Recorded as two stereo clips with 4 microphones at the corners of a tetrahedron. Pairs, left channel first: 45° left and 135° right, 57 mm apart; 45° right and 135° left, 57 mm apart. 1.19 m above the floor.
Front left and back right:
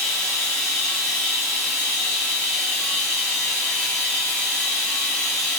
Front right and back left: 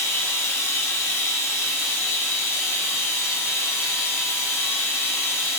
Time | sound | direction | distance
0.0 | running water | 45° right | 1.5 m